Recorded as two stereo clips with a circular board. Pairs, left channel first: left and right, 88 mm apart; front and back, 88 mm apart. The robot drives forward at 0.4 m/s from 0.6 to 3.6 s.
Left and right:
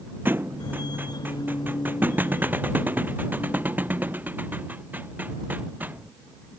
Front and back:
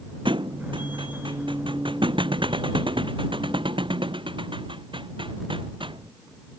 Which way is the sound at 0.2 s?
155° right.